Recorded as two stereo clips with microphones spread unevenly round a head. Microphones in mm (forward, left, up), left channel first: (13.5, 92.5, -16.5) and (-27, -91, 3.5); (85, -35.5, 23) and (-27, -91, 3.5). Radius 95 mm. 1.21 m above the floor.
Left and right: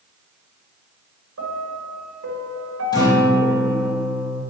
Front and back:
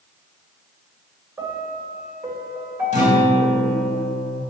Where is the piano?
85° right, 1.5 m.